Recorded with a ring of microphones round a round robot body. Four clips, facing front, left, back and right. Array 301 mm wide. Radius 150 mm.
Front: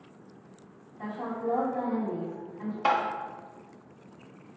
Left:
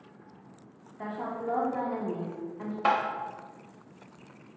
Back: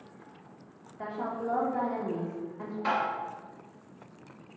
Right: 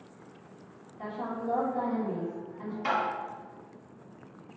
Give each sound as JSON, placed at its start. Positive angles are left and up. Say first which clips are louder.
{"t": 1.0, "sound": "a woman speaking", "louder": "left 1 dB, front 1 dB", "azimuth_deg": 140, "distance_m": 1.1}
{"t": 2.9, "sound": "tapping", "louder": "left 4 dB, front 4 dB", "azimuth_deg": 50, "distance_m": 0.8}